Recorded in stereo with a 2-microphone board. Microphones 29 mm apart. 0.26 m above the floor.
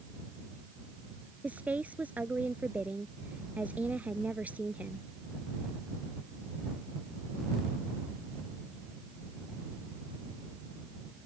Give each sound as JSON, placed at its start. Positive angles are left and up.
{"t": 1.4, "sound": "a woman speaking", "side_deg": -70}